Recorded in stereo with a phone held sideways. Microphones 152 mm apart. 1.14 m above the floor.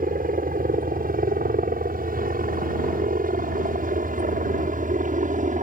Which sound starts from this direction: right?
A helicopter, at 0.0 s.